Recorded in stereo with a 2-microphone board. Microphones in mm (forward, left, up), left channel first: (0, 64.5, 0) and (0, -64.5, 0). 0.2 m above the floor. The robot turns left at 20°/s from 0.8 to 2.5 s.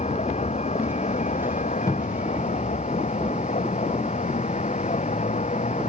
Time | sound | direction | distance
0.0 | a vehicle | 110° left | ?
1.9 | a cupboard door | 30° left (ahead or behind) | ?